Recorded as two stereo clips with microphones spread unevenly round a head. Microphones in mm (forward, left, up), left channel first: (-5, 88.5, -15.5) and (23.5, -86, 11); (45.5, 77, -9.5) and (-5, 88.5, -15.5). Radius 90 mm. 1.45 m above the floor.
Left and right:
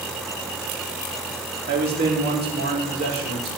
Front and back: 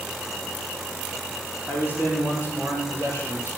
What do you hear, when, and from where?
1.7 s a man speaking: 120° right, 3 m; by 3.5 s 125° right, 4.5 m